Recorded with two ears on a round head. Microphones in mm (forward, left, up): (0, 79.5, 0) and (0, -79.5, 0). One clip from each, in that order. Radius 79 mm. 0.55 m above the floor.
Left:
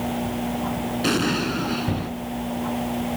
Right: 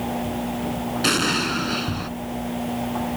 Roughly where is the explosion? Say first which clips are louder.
Right 3 dB; right.